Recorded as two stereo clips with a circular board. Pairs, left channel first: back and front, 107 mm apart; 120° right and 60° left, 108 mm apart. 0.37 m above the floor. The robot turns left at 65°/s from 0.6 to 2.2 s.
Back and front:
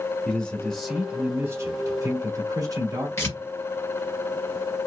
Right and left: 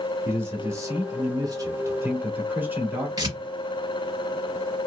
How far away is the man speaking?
About 1.2 m.